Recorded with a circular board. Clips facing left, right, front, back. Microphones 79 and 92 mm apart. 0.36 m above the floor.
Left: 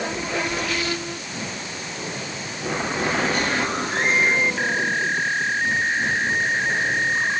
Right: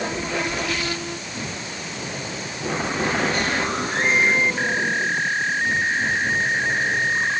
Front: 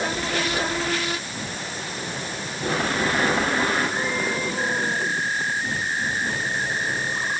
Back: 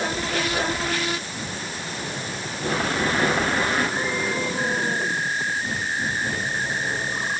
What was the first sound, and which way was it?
Only background noise.